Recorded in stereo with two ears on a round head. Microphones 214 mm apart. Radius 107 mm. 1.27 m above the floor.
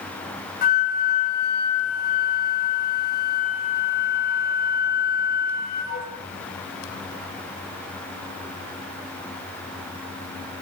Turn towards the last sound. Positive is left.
turn(degrees=40)  # may be behind; listen again after turning